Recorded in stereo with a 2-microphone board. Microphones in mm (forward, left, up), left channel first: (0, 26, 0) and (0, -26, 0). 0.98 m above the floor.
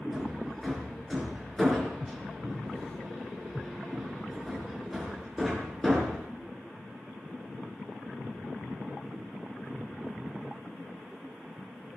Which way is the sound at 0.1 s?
5° left (ahead or behind).